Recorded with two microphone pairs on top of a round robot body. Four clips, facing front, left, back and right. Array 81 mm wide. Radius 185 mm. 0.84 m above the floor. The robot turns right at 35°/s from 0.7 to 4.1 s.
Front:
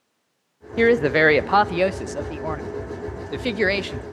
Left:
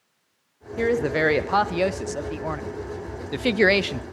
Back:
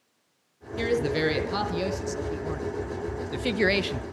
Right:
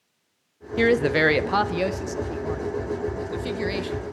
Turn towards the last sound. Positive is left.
turn(degrees=95)